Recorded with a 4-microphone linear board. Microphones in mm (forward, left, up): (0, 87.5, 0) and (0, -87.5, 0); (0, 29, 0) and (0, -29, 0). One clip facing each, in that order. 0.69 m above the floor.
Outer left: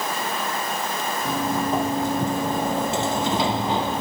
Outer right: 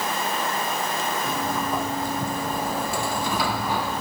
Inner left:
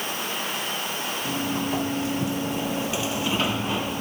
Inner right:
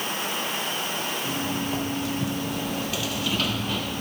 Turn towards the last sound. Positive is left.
turn(degrees=20)  # may be behind; listen again after turning